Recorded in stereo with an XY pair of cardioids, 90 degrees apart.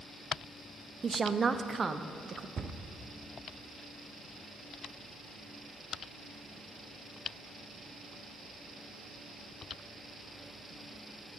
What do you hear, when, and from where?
1.0 s a woman speaking: 35° right, 0.7 m
2.6 s a cupboard door: 50° right, 0.7 m